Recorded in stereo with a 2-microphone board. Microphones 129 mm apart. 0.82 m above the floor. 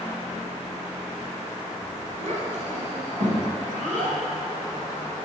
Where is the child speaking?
60° right (ahead or behind), 2.5 m; by 4.2 s 85° right, 3.5 m.